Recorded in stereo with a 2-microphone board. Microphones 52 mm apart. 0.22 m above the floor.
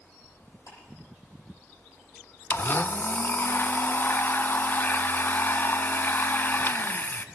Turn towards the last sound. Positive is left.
turn(degrees=45)  # may be behind; listen again after turning